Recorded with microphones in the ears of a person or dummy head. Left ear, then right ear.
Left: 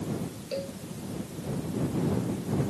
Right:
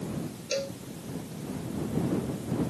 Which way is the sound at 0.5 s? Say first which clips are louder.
Right 3 dB; 75° right (ahead or behind).